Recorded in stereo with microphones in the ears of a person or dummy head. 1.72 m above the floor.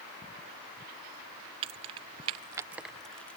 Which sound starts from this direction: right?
Keys jangling, at 1.6 s.